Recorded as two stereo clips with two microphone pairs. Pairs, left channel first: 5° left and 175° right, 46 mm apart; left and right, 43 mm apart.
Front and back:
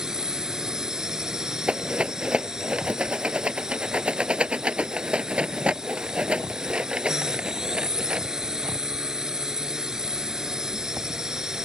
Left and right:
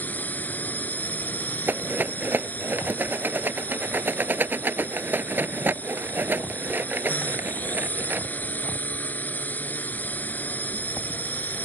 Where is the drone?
115° left.